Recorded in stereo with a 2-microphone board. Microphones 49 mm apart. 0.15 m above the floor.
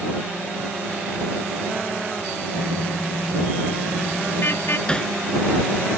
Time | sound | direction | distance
2.5 | a car horn | 50° left (ahead or behind) | ?
4.9 | hammering | 15° left (ahead or behind) | ?